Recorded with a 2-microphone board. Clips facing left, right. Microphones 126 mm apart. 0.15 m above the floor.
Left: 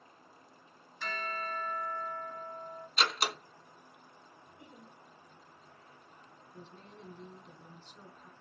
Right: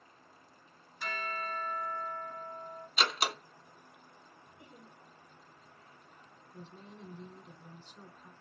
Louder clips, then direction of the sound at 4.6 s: Left 1 dB; 35° left (ahead or behind).